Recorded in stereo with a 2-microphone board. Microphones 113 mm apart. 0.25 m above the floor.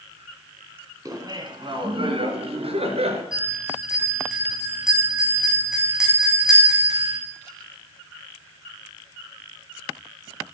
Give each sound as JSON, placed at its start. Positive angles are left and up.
{"t": 1.1, "sound": "laughter", "side_deg": -35, "distance_m": 2.0}
{"t": 3.3, "sound": "a bell", "side_deg": -5, "distance_m": 6.5}